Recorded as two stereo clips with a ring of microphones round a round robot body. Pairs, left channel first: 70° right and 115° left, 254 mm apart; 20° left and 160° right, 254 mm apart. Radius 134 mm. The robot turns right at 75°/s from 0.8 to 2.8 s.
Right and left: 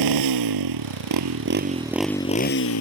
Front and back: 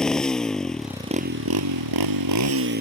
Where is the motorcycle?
110° left; by 2.8 s 100° right.